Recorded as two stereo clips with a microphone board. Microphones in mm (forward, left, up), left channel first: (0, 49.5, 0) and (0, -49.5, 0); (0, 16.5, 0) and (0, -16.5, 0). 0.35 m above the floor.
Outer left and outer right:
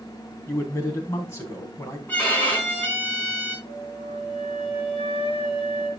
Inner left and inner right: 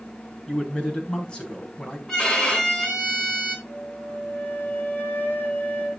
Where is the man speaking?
25° left (ahead or behind), 3 m.